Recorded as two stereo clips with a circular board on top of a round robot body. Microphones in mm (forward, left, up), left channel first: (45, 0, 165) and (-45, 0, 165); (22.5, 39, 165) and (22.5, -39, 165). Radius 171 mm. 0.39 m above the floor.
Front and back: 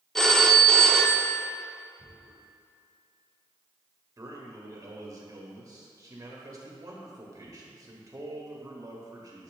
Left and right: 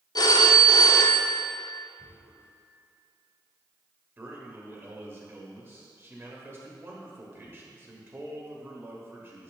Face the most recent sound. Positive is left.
turn(degrees=-145)